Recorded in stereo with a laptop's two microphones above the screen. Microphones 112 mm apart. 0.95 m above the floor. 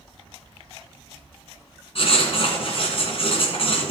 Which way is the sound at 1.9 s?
60° left (ahead or behind).